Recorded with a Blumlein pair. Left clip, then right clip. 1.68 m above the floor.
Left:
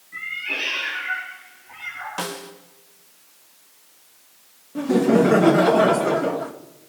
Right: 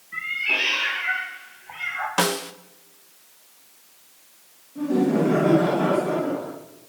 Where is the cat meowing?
15° right, 6 m; by 2.1 s 35° right, 4 m.